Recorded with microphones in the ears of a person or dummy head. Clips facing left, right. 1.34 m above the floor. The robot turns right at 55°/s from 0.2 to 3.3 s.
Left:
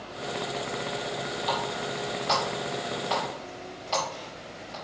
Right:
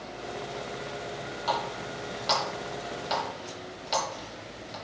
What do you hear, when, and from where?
1.5 s a running tap: 60° right (ahead or behind), 3.5 m; by 4.8 s 20° right (ahead or behind), 3.5 m